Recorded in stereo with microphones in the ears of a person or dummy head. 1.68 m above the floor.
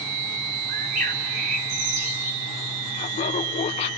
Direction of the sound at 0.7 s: 55° right (ahead or behind).